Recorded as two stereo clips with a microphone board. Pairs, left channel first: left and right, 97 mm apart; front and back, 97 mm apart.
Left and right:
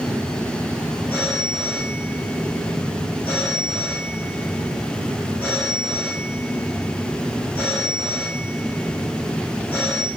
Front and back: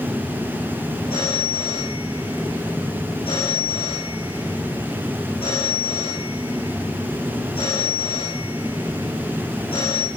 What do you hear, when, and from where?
1.1 s a phone ringing: 15° left, 6.5 m